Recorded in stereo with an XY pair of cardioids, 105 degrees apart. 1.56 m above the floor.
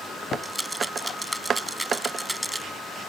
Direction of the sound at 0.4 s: 10° right.